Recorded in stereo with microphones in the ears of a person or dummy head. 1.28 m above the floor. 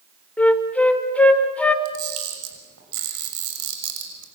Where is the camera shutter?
90° right, 6 m.